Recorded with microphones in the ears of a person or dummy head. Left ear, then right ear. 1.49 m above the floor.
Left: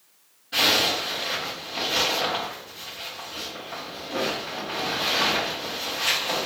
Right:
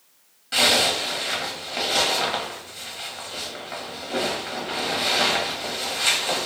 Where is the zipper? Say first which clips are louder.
Right 2 dB; 40° right (ahead or behind), 1.3 m.